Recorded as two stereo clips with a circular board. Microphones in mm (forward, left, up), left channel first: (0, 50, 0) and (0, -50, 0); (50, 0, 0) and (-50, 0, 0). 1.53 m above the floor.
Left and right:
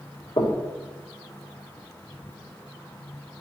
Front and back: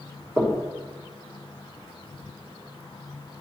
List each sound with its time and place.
0.4 s knocking: 110° left, 1.4 m